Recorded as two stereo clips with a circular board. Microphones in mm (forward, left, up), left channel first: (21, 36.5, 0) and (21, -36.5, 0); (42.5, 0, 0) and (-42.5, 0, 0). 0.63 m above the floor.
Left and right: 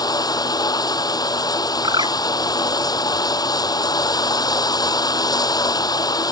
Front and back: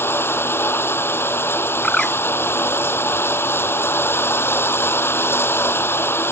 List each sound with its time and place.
0.0 s running water: 65° left
1.8 s a bird: 80° right